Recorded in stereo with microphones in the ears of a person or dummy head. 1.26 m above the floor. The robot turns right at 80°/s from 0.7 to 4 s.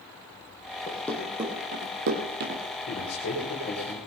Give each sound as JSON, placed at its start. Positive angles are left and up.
{"t": 0.9, "sound": "running footsteps", "side_deg": 25, "distance_m": 3.5}
{"t": 2.9, "sound": "a man speaking", "azimuth_deg": 80, "distance_m": 4.0}